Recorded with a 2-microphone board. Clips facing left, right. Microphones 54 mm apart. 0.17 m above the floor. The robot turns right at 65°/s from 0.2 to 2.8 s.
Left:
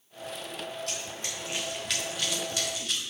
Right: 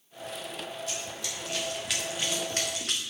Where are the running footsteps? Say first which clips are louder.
Even; 70° left (ahead or behind), 4.5 m; by 3.0 s 70° right (ahead or behind), 2.5 m.